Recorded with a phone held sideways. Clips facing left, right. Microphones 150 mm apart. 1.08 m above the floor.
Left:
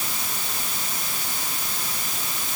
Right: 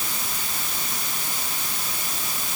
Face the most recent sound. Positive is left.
No sound to turn to.